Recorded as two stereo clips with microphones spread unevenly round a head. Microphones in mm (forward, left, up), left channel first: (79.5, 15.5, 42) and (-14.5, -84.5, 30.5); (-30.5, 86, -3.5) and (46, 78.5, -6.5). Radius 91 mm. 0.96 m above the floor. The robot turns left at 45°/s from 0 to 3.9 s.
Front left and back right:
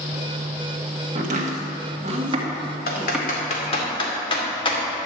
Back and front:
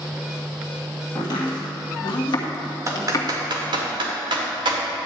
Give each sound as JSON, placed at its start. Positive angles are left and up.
{"t": 1.1, "sound": "chopping", "azimuth_deg": -130, "distance_m": 1.6}
{"t": 2.9, "sound": "typing on a keyboard", "azimuth_deg": 40, "distance_m": 2.0}